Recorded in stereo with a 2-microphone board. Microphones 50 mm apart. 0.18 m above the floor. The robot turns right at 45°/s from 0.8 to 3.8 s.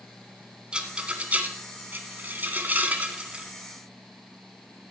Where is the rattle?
20° right (ahead or behind), 1.4 m.